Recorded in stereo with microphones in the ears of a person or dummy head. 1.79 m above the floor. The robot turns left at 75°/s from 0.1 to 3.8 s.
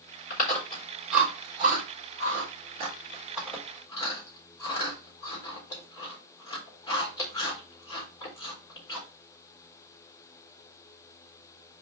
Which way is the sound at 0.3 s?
55° left (ahead or behind).